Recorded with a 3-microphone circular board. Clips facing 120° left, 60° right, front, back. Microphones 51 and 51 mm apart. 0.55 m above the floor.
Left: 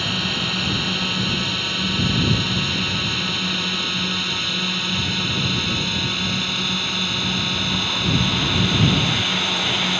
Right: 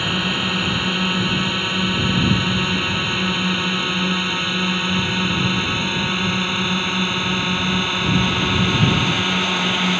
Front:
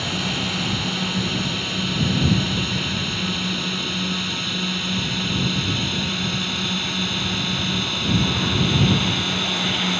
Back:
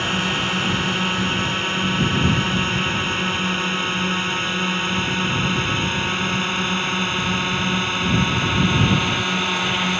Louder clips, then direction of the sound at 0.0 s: Right 3 dB, back 4 dB; 135° right.